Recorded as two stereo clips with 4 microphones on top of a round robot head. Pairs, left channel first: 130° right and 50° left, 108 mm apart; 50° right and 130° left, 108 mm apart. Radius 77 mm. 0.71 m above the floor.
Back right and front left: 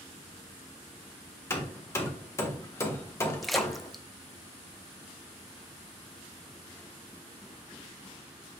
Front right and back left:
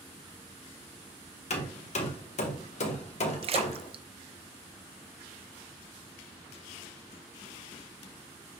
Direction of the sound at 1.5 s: 65° right.